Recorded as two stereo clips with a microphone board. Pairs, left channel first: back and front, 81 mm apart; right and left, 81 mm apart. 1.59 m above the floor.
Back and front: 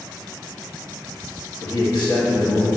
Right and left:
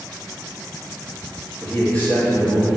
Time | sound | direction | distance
1.6 | a man speaking | 160° right | 0.7 m